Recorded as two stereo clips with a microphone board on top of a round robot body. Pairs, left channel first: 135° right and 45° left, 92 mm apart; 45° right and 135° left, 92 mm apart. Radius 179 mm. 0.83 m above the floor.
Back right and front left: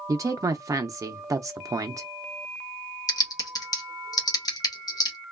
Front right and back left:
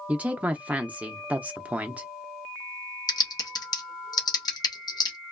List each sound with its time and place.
0.1 s a woman speaking: 70° left, 0.5 m
3.1 s typing on a keyboard: 90° right, 0.7 m